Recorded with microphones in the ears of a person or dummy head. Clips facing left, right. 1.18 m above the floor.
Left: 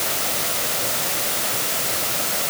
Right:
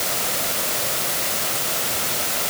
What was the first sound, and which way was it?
Only background noise.